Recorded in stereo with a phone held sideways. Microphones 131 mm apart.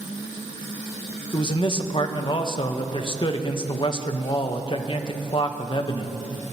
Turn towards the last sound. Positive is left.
turn(degrees=40)  # may be behind; listen again after turning